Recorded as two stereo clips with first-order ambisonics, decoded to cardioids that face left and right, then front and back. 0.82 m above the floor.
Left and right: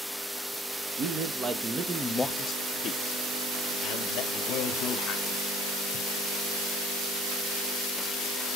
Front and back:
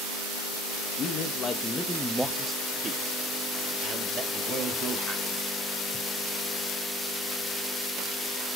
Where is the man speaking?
50° right, 0.9 m; by 5.4 s 130° left, 2 m.